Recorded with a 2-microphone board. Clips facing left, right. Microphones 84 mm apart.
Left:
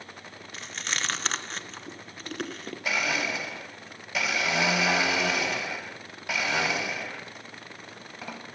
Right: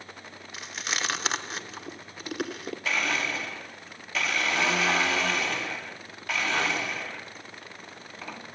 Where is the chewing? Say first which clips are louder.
Right 1 dB; 10° right (ahead or behind), 0.7 m.